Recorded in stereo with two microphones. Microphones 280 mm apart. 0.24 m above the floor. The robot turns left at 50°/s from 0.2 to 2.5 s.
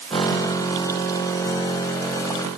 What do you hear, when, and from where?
Only background noise.